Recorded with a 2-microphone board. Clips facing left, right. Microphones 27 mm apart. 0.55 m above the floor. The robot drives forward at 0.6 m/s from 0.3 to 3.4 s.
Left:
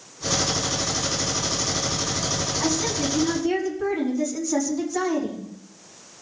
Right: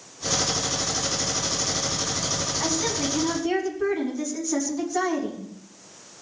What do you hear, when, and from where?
2.6 s a woman speaking: 5° right (ahead or behind), 4.5 m